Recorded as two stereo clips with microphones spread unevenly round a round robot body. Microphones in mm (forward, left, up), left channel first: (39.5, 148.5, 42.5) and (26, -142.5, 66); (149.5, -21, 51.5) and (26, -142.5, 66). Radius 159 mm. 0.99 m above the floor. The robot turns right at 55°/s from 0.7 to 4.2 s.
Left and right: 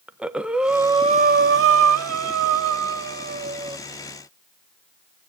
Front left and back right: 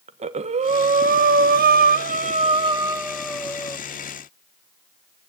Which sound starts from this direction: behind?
Breathing, at 0.1 s.